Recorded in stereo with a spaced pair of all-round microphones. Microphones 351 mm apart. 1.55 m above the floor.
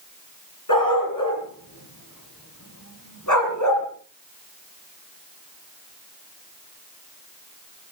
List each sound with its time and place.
0.7 s a dog barking: 65° left (ahead or behind), 6.5 m; by 3.9 s 55° left (ahead or behind), 5 m